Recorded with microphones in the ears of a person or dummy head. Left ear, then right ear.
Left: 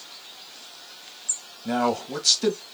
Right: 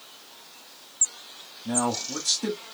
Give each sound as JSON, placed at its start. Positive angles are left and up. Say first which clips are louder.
{"t": 1.6, "sound": "a man speaking", "louder": "left 3 dB", "side_deg": 65, "distance_m": 1.8}